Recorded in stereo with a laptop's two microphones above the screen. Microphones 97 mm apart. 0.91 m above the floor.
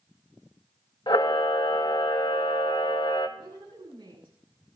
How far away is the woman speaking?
About 7.5 m.